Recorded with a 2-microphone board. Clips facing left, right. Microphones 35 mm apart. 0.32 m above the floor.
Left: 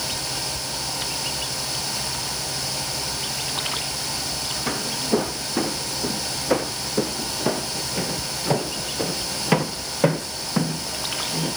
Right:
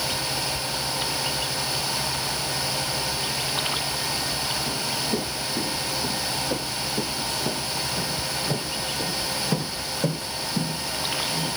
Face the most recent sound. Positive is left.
turn(degrees=85)